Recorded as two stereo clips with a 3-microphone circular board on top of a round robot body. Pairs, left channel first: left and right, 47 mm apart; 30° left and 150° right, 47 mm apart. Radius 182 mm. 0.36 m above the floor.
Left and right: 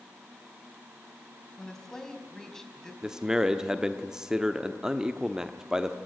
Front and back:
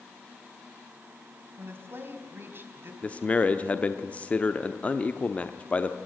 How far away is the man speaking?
About 1.1 m.